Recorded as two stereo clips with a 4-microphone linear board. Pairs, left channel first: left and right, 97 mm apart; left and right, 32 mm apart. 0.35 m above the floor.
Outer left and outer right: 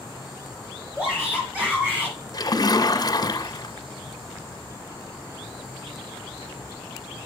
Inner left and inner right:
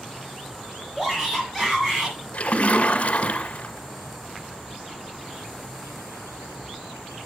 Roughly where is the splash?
Left.